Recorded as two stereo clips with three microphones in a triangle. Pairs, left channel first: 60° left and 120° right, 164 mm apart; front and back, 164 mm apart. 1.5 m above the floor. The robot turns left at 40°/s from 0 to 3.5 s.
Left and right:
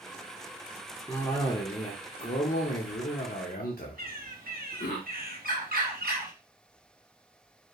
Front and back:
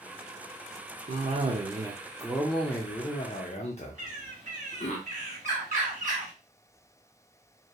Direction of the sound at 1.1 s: 145° left.